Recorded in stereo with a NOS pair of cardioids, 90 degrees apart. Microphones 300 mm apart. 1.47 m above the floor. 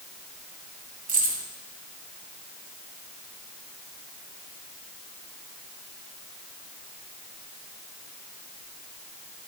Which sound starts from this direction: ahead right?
Keys jangling, at 1.1 s.